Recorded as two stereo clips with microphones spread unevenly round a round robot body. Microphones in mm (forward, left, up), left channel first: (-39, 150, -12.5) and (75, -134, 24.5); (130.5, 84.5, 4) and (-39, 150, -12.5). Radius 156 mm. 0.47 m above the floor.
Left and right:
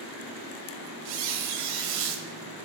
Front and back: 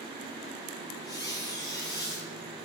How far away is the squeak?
About 1.3 m.